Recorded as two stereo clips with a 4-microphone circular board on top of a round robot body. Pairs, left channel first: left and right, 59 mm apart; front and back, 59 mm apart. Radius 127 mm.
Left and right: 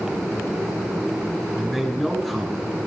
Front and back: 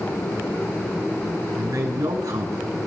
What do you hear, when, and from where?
1.6 s a man speaking: 175° right, 5 m